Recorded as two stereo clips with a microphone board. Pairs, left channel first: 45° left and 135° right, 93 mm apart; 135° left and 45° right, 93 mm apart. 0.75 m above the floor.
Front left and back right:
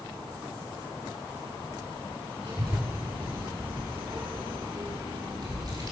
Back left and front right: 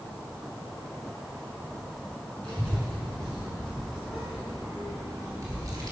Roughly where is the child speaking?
Behind right.